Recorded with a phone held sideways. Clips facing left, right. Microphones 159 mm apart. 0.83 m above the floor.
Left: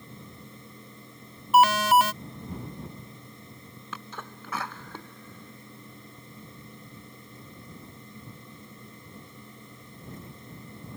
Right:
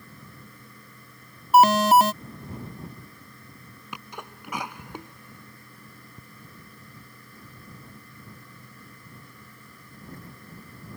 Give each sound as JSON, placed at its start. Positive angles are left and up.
{"t": 0.0, "sound": "a fan", "side_deg": 25}
{"t": 1.5, "sound": "an alarm", "side_deg": -40}
{"t": 3.9, "sound": "a sneeze", "side_deg": -15}